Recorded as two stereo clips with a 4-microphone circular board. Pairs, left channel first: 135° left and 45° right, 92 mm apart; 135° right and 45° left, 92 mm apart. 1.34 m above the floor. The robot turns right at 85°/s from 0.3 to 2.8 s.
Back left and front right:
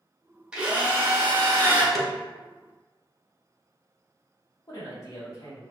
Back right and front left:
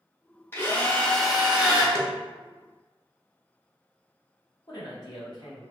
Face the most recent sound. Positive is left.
turn(degrees=-175)